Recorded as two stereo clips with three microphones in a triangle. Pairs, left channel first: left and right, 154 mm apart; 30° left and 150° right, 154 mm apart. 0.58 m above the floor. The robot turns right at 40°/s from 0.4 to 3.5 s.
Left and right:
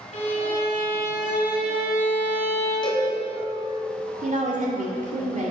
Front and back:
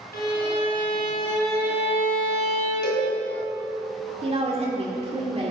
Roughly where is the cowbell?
Ahead left.